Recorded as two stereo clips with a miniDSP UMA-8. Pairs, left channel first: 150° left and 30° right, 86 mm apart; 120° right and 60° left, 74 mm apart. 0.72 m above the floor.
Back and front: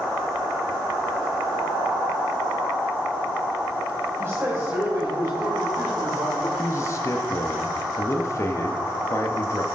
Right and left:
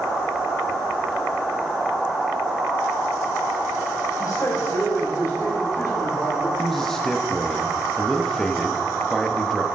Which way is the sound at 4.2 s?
80° right.